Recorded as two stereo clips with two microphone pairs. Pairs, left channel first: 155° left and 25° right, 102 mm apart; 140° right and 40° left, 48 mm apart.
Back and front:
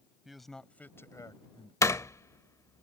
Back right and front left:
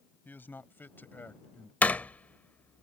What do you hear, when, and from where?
0.2 s a man speaking: 110° right; by 1.7 s 170° left
1.8 s a door slam: 170° right